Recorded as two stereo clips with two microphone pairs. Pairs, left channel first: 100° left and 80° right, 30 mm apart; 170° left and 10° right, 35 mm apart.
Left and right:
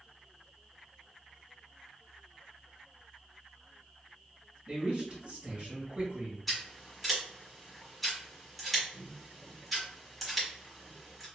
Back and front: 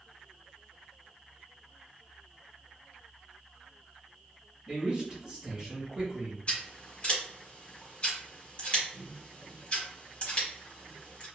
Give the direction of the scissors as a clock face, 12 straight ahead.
6 o'clock.